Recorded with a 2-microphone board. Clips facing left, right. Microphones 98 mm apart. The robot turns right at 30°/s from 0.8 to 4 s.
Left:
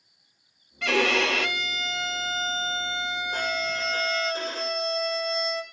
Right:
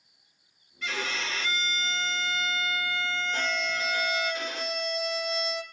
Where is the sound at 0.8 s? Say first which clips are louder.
Left 10 dB; 95° left, 0.6 m; by 4.3 s 170° right, 0.6 m.